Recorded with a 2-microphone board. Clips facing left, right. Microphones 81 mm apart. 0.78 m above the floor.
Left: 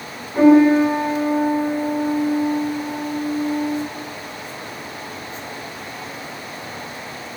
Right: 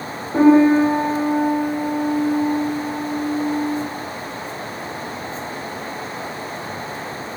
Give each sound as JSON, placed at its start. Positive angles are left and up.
{"t": 0.3, "sound": "a piano", "side_deg": -60, "distance_m": 1.3}